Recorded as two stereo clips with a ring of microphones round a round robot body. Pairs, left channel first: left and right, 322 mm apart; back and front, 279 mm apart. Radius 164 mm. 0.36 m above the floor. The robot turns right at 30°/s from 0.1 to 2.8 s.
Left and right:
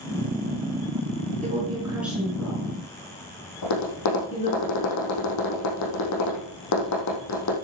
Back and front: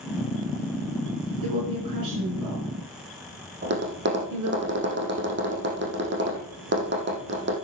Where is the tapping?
50° left, 4.5 m.